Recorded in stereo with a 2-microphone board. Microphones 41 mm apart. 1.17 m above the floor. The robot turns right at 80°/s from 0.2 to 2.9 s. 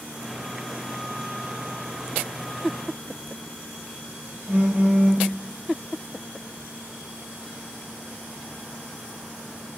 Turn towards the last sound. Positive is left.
turn(degrees=-60)  # may be behind; listen again after turning